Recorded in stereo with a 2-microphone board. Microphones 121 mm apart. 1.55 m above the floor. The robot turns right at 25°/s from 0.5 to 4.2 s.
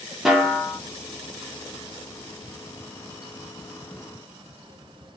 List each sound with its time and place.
0.2 s a snare drum: 5° right (ahead or behind), 0.9 m; by 0.8 s 5° left (ahead or behind), 0.9 m